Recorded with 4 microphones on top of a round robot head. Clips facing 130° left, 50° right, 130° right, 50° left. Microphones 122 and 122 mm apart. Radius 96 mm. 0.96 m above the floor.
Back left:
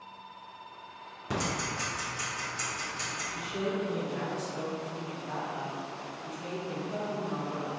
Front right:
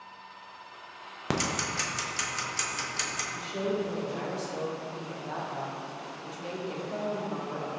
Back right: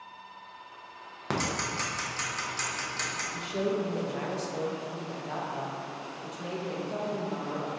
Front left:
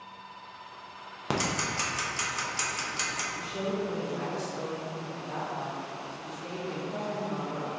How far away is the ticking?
About 0.5 m.